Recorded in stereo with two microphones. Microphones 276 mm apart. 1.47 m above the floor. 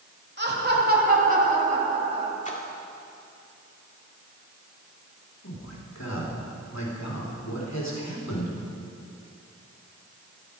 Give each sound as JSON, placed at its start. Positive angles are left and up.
{"t": 0.4, "sound": "laughter", "side_deg": -40, "distance_m": 3.0}
{"t": 2.5, "sound": "a splash", "side_deg": 25, "distance_m": 2.0}
{"t": 5.4, "sound": "a man speaking", "side_deg": 70, "distance_m": 3.5}